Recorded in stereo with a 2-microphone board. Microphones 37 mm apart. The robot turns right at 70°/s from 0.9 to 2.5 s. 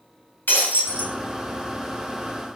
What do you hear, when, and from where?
0.5 s breaking glass: 70° left (ahead or behind), 2.5 m; by 1.1 s 60° left (ahead or behind), 2.5 m